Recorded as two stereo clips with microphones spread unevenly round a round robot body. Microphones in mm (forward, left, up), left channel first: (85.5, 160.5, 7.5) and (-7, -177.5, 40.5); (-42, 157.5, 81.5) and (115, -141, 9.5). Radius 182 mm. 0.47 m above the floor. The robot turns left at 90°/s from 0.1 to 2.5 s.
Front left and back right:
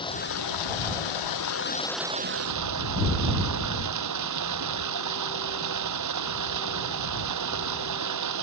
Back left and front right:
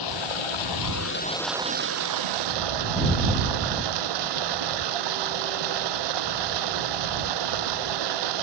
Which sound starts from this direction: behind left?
Running water, at 0.0 s.